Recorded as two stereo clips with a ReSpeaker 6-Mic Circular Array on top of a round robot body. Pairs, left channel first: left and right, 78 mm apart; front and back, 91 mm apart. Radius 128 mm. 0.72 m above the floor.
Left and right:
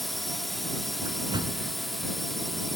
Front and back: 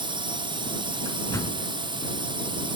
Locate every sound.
0.0 s a drone: straight behind
1.1 s a door slam: 60° right